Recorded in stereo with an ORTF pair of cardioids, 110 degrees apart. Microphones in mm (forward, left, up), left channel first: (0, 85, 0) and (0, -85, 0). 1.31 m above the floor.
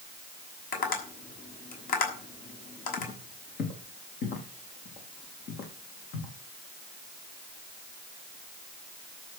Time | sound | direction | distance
0.7 | tapping | 60° left | 6 m
3.0 | footsteps | 65° left | 5 m